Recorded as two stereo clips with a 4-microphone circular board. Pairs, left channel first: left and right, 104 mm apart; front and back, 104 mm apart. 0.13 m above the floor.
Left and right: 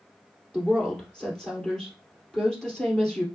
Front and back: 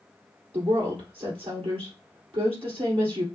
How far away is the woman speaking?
About 2.5 m.